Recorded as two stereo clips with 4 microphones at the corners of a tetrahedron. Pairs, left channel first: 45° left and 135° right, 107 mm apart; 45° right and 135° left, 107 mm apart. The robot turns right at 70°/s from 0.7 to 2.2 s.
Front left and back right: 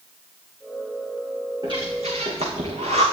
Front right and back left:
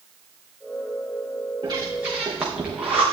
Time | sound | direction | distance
1.6 | breathing | 175° left | 4 m